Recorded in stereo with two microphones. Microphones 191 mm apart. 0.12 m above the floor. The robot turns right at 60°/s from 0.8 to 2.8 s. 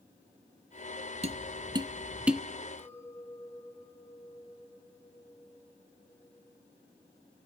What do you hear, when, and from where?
1.2 s tapping: 35° right (ahead or behind), 0.6 m; by 2.4 s centre (ahead or behind), 0.6 m
2.8 s a clink: 10° left (ahead or behind), 3 m